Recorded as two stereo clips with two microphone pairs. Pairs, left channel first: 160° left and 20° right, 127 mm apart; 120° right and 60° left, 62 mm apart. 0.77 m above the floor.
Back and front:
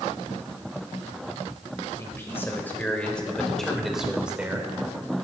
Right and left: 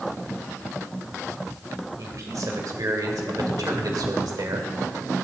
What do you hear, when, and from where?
2.0 s a man speaking: 90° left, 2.5 m; by 4.7 s 55° left, 2 m